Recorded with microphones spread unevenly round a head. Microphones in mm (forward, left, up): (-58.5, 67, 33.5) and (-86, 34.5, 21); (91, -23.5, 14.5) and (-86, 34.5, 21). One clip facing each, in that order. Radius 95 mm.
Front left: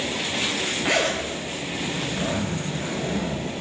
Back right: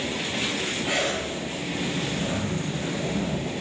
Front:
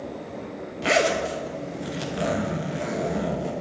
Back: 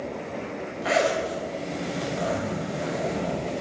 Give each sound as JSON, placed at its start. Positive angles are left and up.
{"t": 0.8, "sound": "a zipper", "azimuth_deg": 35, "distance_m": 0.8}